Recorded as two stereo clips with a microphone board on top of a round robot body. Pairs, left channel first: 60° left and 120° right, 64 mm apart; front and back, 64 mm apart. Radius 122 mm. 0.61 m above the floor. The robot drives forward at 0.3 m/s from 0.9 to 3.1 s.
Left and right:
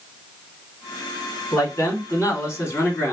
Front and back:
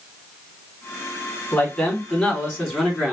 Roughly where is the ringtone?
No ringtone in this recording.